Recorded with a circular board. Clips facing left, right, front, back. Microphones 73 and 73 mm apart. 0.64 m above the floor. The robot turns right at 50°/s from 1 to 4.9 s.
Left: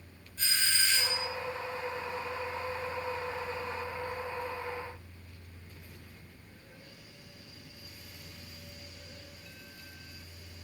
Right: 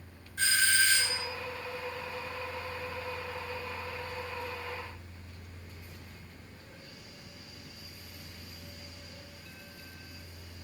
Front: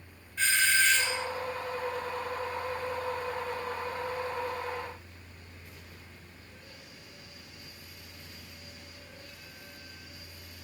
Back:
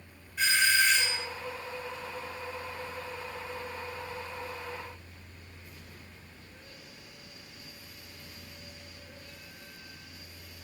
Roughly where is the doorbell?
Right.